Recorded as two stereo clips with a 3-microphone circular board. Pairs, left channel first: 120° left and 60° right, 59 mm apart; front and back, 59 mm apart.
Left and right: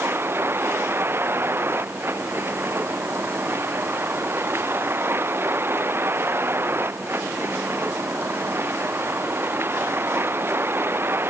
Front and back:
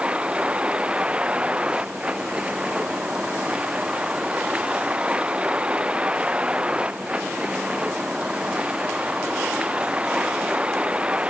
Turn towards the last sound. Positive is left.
turn(degrees=-110)